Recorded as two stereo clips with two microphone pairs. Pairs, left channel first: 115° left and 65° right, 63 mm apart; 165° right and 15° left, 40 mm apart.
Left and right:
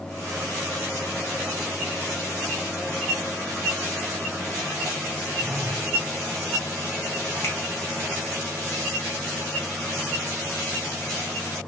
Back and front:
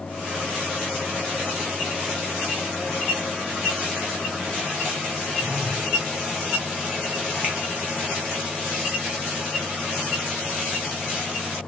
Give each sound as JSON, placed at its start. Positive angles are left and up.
{"t": 5.4, "sound": "a phone buzzing", "azimuth_deg": -20, "distance_m": 0.7}
{"t": 7.4, "sound": "a finger snap", "azimuth_deg": 70, "distance_m": 1.9}